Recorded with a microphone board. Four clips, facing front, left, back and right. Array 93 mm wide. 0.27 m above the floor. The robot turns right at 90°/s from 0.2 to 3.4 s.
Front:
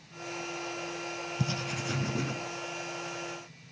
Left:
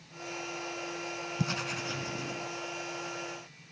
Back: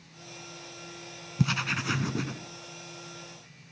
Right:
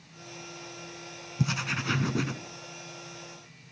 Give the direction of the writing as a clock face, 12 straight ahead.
6 o'clock.